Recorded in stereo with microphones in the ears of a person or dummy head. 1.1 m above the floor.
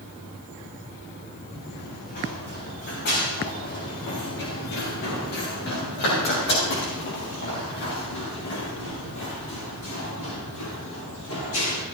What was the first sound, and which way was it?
Running footsteps, 45° left (ahead or behind).